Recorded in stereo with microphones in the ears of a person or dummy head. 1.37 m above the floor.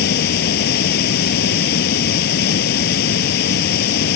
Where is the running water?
60° left (ahead or behind).